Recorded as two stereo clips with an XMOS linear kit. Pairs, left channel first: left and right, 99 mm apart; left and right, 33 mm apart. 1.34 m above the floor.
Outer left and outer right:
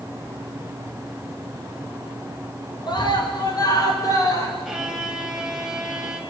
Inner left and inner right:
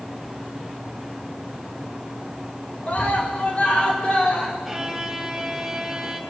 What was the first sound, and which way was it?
A scream, 45° left (ahead or behind).